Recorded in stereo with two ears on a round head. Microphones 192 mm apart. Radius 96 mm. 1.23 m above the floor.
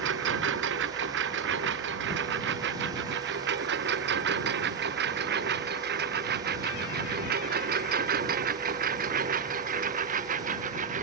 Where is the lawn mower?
55° right (ahead or behind); by 11.0 s 35° right (ahead or behind).